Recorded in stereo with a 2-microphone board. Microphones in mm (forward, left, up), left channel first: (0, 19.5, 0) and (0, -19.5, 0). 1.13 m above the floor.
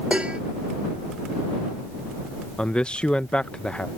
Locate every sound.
0.1 s dishes clattering: 30° right (ahead or behind)
2.6 s a man speaking: 30° left (ahead or behind)